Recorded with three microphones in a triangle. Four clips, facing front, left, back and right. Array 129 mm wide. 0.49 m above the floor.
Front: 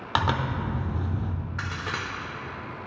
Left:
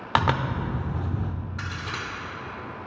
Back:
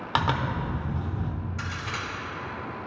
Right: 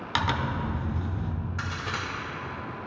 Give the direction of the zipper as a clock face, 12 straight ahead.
9 o'clock.